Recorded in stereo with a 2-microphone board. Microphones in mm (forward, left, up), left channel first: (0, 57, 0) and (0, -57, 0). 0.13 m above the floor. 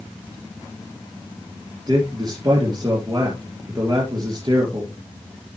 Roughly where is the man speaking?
Right.